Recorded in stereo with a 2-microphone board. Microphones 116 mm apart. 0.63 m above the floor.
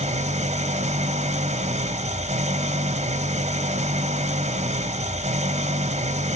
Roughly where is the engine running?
Right.